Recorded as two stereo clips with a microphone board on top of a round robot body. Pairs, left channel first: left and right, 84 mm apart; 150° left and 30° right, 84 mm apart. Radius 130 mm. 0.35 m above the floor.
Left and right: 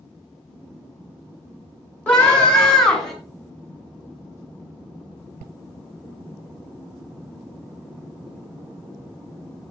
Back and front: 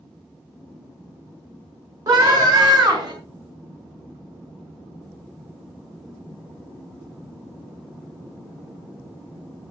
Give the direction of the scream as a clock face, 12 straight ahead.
12 o'clock.